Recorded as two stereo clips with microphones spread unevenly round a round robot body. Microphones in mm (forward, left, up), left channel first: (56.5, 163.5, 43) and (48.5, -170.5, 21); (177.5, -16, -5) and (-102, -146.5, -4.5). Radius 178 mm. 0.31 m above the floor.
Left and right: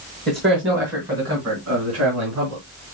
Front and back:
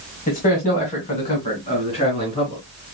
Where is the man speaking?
35° right, 1.8 m; by 2.6 s 45° right, 4 m.